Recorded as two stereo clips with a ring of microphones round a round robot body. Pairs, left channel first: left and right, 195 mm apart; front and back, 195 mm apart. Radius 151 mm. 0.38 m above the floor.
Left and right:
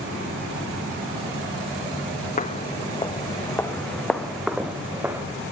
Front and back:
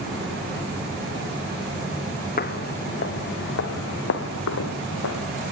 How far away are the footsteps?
About 1.7 m.